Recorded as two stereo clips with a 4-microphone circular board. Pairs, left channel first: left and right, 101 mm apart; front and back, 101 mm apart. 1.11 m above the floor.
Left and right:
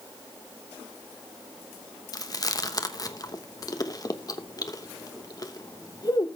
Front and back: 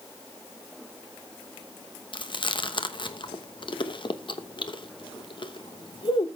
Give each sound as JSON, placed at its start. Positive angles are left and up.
{"t": 2.1, "sound": "chewing", "azimuth_deg": 40, "distance_m": 1.0}